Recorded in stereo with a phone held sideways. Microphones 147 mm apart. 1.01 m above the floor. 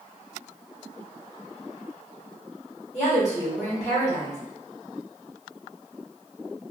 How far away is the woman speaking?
About 1.4 m.